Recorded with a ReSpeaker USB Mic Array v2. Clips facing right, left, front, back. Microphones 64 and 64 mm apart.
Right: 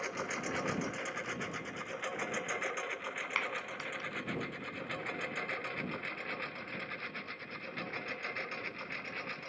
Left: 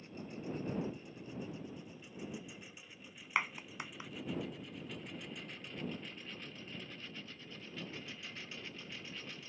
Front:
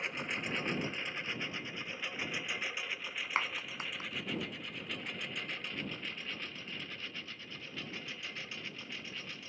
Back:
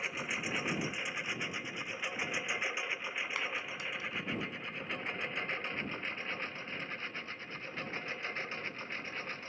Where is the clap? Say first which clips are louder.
Left 3 dB, front 2 dB; 20° left.